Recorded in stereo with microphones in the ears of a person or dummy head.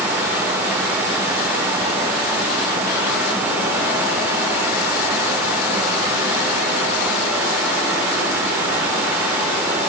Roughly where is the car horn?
No car horn in this recording.